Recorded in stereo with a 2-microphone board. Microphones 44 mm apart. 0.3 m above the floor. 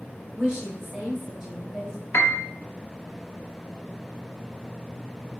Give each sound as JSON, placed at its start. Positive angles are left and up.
{"t": 0.3, "sound": "a woman speaking", "side_deg": -10, "distance_m": 1.3}
{"t": 2.1, "sound": "a piano", "side_deg": 55, "distance_m": 0.6}